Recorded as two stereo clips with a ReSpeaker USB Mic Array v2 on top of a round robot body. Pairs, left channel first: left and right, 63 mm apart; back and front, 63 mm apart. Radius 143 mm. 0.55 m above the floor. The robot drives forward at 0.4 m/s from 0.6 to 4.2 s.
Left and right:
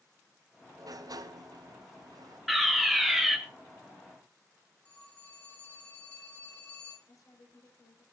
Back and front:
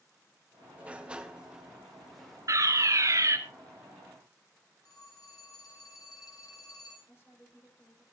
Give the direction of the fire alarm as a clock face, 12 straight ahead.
12 o'clock.